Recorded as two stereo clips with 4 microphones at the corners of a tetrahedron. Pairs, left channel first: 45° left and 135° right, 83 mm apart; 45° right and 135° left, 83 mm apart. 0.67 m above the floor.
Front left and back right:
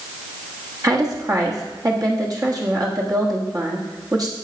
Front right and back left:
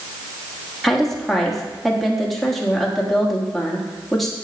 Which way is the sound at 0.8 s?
135° right.